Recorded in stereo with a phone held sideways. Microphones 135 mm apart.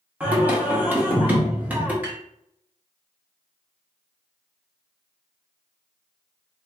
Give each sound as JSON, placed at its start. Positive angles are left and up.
{"t": 0.2, "sound": "singing", "side_deg": -10, "distance_m": 1.0}
{"t": 2.0, "sound": "dishes clattering", "side_deg": -15, "distance_m": 1.9}